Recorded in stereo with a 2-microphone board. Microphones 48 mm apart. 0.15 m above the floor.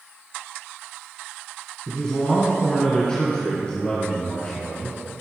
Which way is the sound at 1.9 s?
20° left (ahead or behind).